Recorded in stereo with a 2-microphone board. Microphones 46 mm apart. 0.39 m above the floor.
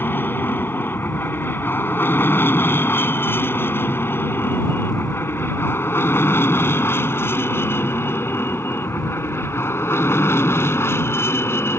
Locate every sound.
0.0 s an aircraft: 50° left (ahead or behind); by 11.8 s 65° left (ahead or behind)